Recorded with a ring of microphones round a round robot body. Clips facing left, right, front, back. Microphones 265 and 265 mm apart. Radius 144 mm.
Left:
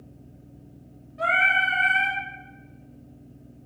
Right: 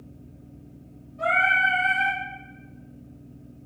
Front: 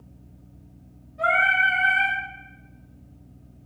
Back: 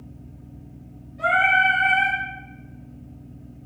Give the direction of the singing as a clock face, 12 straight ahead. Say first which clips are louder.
Right 2 dB, back 3 dB; 9 o'clock.